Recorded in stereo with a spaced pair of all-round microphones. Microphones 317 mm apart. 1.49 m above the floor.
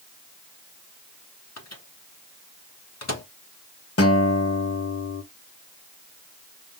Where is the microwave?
55° left (ahead or behind), 0.9 m.